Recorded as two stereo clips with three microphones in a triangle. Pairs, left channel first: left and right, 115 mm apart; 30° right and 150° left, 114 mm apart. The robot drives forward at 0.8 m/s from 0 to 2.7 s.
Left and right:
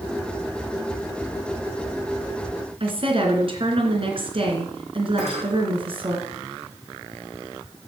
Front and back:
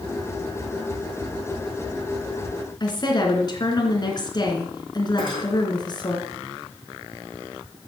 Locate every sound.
2.8 s a woman speaking: 70° right, 3 m
5.2 s cutlery clinking: 75° right, 6.5 m